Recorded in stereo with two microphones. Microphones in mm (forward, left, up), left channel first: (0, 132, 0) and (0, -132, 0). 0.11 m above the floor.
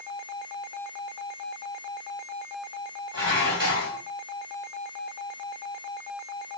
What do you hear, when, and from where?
3.1 s dishes clattering: 50° right (ahead or behind), 2 m